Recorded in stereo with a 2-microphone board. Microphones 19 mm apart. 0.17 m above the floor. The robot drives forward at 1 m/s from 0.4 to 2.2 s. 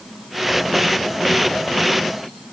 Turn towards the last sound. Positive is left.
No sound to turn to.